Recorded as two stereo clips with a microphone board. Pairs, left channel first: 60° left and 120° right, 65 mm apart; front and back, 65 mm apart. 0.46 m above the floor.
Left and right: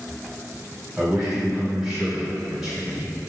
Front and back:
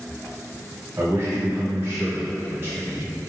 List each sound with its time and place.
1.0 s a man speaking: 160° left, 1.7 m